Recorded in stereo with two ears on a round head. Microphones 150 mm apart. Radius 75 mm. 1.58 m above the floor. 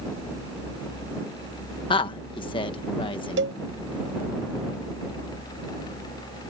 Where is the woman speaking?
30° left (ahead or behind).